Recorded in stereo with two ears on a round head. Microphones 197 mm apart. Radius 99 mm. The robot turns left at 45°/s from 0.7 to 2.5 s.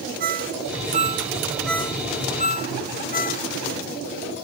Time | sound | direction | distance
0.2 | a ringtone | 40° right (ahead or behind) | ?